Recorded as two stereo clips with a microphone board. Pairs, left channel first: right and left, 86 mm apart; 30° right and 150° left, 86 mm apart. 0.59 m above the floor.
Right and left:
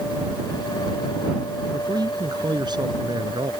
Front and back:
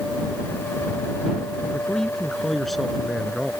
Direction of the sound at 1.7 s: 55° left.